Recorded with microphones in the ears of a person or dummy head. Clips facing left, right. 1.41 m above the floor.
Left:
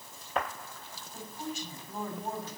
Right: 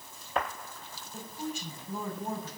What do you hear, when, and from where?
1.1 s a woman speaking: 85° right, 6.5 m